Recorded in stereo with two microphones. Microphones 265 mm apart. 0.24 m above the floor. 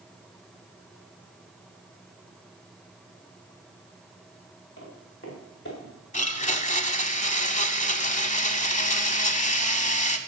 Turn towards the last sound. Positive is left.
turn(degrees=25)  # may be behind; listen again after turning